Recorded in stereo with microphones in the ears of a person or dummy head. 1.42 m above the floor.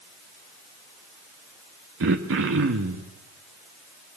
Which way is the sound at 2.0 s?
65° right (ahead or behind).